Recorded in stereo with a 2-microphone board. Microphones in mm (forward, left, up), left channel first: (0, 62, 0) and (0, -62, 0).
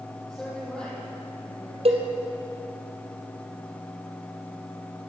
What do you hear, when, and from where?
0.3 s a woman speaking: 5° left (ahead or behind), 6.5 m; by 1.8 s 10° left (ahead or behind), 6.5 m
1.9 s a cowbell: 55° right (ahead or behind), 2.5 m